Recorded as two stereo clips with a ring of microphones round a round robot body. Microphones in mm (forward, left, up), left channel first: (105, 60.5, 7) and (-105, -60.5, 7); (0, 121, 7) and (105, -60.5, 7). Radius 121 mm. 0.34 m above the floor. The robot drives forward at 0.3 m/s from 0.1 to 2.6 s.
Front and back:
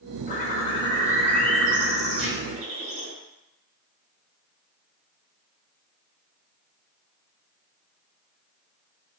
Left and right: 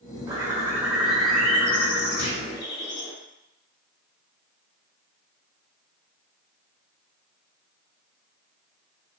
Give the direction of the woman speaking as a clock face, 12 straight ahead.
No woman speaking in this recording.